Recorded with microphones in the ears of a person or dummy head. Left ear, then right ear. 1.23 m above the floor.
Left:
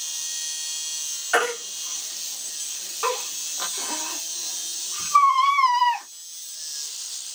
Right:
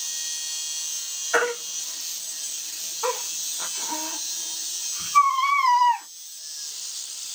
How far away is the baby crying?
About 1.8 m.